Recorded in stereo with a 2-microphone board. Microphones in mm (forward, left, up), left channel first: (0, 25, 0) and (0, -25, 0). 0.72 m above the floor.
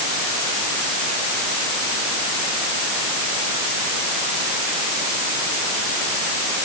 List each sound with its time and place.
Only background noise.